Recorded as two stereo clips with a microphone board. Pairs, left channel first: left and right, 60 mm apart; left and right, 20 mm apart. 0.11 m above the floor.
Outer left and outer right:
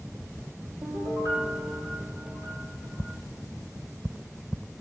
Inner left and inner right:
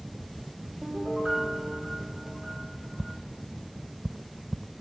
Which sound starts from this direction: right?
A piano, at 0.8 s.